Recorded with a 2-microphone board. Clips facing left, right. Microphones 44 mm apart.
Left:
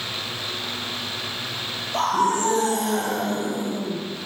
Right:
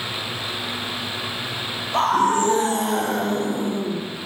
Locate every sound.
1.9 s a scream: 40° right (ahead or behind), 7.5 m; by 4.0 s 35° right (ahead or behind), 5 m